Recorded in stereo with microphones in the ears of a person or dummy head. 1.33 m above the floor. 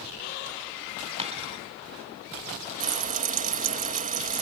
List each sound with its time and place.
1.2 s a dropped coin: 40° right (ahead or behind)
2.8 s frying: 45° right (ahead or behind)